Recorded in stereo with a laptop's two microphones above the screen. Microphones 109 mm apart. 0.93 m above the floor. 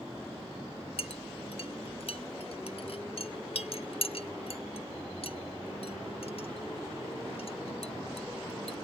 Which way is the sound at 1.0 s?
60° left (ahead or behind).